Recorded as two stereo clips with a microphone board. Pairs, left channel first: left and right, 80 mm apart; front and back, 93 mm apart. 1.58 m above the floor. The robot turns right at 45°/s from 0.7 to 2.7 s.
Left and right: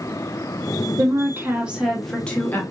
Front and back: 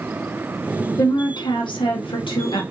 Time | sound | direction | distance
1.0 | a woman speaking | 45° right | 1.0 m